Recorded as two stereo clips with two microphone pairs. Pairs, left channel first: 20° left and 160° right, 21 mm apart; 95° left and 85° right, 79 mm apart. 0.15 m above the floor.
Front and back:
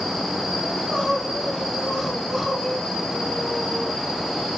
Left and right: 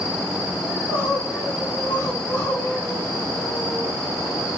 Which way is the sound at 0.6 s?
105° left.